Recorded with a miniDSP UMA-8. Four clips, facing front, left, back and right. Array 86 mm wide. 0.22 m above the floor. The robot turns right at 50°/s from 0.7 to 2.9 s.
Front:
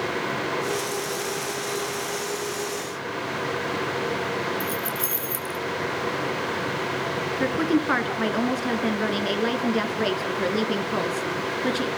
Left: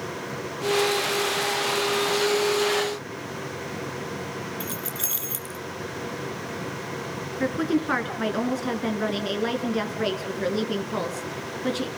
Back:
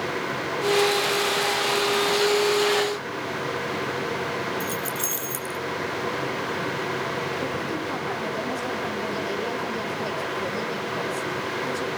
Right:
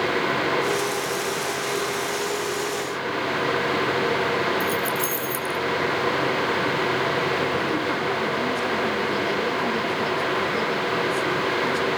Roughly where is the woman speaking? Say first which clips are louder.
Right 1 dB, front 6 dB; ahead left.